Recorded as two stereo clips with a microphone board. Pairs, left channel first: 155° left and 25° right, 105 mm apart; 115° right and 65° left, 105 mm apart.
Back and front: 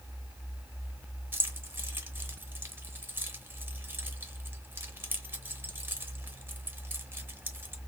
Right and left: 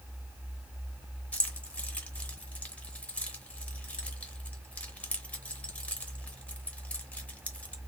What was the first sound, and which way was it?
Keys jangling, 50° right.